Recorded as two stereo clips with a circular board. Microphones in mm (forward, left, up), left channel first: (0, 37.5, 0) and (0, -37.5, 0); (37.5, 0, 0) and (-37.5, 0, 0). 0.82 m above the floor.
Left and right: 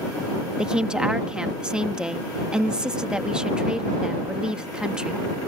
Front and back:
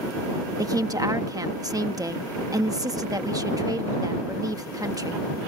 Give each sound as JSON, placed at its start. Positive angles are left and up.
{"t": 0.6, "sound": "a woman speaking", "azimuth_deg": -170}